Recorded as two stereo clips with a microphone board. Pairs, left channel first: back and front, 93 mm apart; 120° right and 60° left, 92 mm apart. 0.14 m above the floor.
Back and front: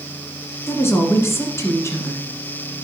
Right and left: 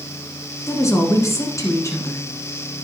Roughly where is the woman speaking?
Behind right.